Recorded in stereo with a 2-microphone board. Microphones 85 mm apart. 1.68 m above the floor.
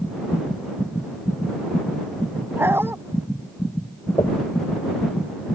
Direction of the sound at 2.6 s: 25° right (ahead or behind).